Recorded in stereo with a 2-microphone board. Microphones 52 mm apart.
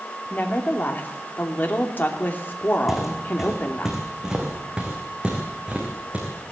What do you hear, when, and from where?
0.3 s a woman speaking: 40° left (ahead or behind), 2.5 m
2.9 s footsteps: centre (ahead or behind), 4 m; by 6.5 s 25° right (ahead or behind), 5.5 m